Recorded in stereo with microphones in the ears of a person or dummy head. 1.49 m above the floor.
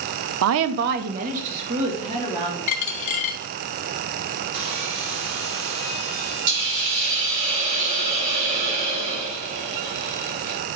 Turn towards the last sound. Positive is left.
turn(degrees=-45)  # may be behind; listen again after turning